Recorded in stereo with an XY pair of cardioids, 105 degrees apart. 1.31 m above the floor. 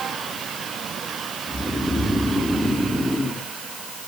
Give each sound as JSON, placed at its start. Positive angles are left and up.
{"t": 1.5, "sound": "snoring", "azimuth_deg": -5, "distance_m": 2.5}